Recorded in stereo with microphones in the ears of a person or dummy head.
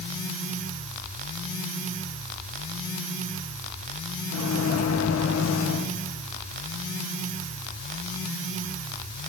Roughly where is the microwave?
Left.